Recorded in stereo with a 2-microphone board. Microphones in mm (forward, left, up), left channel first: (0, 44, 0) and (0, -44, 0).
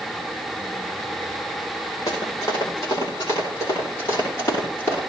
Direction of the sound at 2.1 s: 40° left (ahead or behind).